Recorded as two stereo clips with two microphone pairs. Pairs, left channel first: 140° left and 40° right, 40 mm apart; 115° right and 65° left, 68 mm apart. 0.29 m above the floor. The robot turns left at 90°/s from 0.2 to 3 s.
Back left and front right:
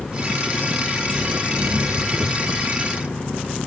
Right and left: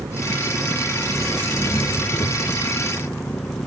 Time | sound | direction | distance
0.0 | an engine running | 75° left | ?